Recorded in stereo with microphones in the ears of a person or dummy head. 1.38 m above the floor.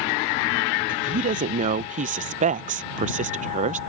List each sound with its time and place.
0.9 s a woman speaking: 35° right (ahead or behind)